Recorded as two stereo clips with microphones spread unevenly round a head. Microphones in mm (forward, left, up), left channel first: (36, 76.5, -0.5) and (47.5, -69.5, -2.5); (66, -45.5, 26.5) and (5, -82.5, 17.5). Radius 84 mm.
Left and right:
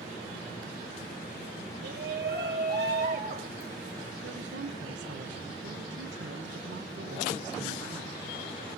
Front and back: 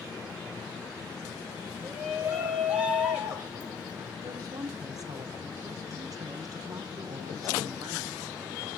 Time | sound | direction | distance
1.8 | a shout | 75° right | 7 m
4.2 | a woman speaking | 115° right | 2 m